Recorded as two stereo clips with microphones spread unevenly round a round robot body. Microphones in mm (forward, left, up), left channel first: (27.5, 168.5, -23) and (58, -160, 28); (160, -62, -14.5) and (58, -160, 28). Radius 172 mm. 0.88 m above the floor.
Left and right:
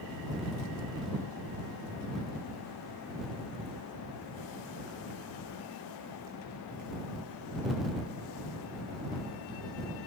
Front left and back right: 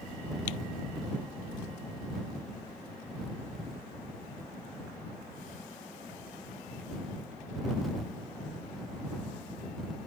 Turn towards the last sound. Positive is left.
No sound to turn to.